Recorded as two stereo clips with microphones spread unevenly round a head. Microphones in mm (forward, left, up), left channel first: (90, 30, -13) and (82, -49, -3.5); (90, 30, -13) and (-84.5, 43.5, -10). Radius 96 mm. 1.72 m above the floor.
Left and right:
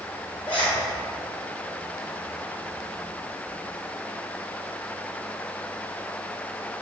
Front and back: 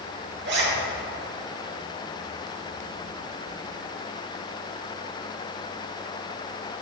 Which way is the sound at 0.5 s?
165° left.